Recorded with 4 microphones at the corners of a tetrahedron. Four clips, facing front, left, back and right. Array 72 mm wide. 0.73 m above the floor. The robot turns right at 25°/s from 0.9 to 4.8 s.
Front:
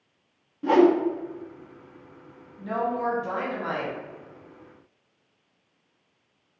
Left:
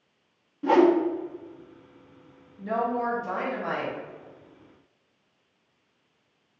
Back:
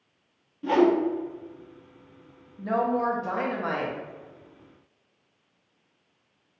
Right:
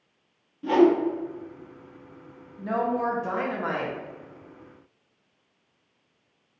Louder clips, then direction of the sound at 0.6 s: Even, front 3 dB; 45° left.